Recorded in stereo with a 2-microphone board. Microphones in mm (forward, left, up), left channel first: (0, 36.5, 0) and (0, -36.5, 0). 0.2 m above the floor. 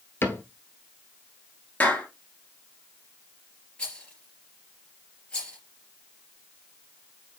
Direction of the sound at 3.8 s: 15° left (ahead or behind).